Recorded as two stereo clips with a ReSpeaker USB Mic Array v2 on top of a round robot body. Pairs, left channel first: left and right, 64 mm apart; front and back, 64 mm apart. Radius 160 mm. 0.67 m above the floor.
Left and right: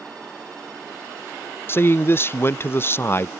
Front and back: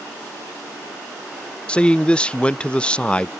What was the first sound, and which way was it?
A man speaking, 65° left.